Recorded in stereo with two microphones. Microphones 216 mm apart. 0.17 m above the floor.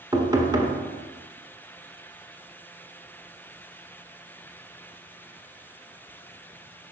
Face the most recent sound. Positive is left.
turn(degrees=-20)  # may be behind; listen again after turning